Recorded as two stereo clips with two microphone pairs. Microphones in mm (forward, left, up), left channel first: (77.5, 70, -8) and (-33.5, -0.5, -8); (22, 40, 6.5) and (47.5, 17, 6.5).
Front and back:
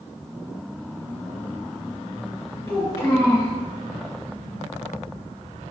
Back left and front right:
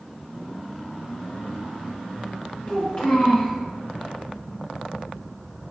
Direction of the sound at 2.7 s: 80° left.